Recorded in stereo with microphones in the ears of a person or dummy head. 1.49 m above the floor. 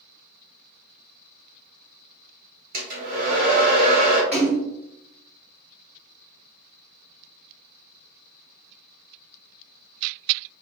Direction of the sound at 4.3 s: 10° right (ahead or behind).